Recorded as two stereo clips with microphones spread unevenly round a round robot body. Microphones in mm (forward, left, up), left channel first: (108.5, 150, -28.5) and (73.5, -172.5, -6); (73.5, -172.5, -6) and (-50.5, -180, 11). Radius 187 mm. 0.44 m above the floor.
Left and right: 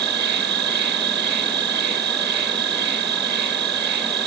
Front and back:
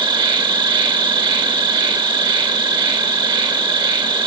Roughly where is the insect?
Behind right.